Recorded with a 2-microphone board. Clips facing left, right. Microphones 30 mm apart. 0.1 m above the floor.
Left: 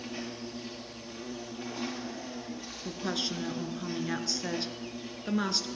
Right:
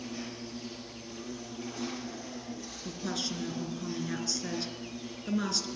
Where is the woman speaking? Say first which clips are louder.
Left 2 dB; 20° left (ahead or behind), 1.1 m.